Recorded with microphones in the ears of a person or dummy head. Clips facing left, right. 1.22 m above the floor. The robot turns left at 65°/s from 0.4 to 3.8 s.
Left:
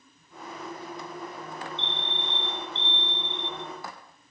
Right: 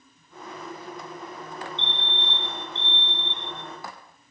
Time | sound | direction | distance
1.8 | a fire alarm | 30° right | 7.5 m